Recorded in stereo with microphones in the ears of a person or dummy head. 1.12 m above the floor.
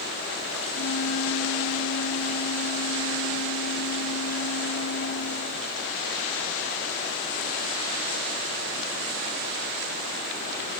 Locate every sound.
0.7 s a flute: 75° left (ahead or behind), 1.5 m